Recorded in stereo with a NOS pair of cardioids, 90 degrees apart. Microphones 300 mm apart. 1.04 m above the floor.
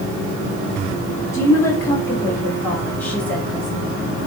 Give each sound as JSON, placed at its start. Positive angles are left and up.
{"t": 1.3, "sound": "a woman speaking", "azimuth_deg": 10, "distance_m": 4.0}